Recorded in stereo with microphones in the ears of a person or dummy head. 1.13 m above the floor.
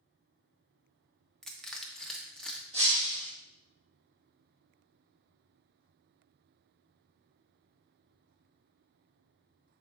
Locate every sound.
1.4 s crushing: 5° left (ahead or behind), 0.8 m
2.7 s breaking glass: 30° right (ahead or behind), 3 m